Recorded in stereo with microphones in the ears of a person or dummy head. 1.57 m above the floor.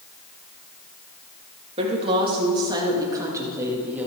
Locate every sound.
1.8 s a woman speaking: 30° right (ahead or behind), 2.5 m; by 4.1 s 10° right (ahead or behind), 3 m